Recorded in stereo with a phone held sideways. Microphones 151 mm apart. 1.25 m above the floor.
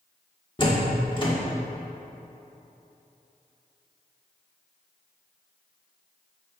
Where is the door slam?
30° left (ahead or behind), 1.7 m.